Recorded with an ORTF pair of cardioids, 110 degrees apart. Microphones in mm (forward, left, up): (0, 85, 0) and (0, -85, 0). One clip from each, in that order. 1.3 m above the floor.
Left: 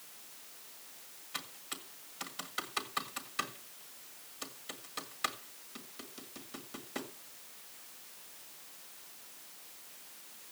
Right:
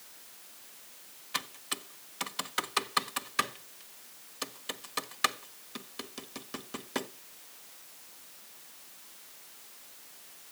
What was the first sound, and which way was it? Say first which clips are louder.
Typing on a keyboard: right 7 dB; 40° right.